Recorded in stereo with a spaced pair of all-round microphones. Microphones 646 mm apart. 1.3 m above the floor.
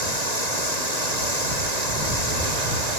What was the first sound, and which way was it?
Running water, 85° right.